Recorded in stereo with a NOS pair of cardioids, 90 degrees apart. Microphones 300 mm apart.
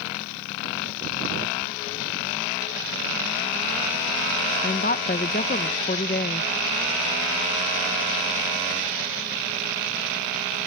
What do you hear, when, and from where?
4.6 s a woman speaking: 30° left